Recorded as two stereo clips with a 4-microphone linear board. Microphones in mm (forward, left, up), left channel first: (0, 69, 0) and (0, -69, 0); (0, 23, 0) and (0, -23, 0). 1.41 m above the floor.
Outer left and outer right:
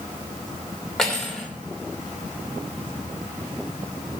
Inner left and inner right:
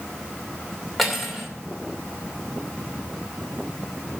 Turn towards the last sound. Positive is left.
turn(degrees=5)  # may be behind; listen again after turning